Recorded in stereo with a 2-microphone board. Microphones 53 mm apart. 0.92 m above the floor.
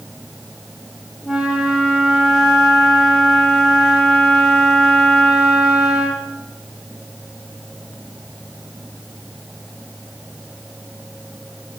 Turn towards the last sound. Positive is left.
turn(degrees=-10)  # may be behind; listen again after turning